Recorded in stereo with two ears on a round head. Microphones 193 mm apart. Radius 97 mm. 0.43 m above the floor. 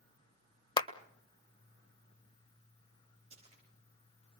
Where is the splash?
30° right (ahead or behind), 9 m.